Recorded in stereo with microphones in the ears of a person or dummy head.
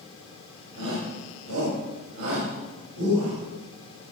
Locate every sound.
0.8 s a shout: 85° right, 4.5 m